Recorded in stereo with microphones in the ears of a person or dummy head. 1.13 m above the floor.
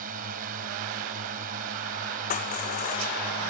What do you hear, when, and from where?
0.0 s a drone: 50° right (ahead or behind)
2.3 s crushing: 50° left (ahead or behind)